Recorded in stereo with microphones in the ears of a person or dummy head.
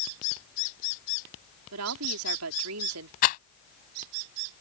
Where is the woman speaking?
80° right.